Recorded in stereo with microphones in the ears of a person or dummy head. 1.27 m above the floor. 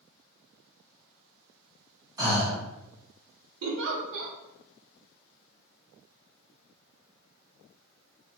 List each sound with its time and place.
2.2 s breathing: 15° right (ahead or behind), 0.7 m
3.6 s a giggle: 70° right (ahead or behind), 0.6 m